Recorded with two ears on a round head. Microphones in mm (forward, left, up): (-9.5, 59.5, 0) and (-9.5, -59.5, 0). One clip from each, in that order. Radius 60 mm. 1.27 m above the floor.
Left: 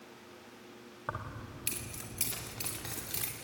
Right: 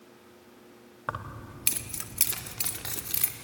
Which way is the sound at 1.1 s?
35° right (ahead or behind).